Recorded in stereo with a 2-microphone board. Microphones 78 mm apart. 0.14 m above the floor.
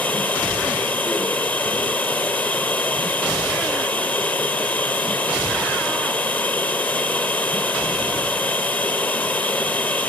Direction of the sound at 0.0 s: 20° left (ahead or behind).